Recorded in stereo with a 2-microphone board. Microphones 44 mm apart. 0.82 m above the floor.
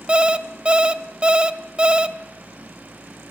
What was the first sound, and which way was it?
An alarm clock, 25° right (ahead or behind).